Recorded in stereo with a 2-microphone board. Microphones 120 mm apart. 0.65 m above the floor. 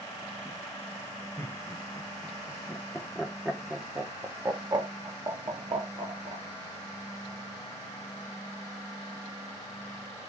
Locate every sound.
1.4 s laughter: 15° left (ahead or behind), 2 m; by 6.5 s 55° right (ahead or behind), 1.6 m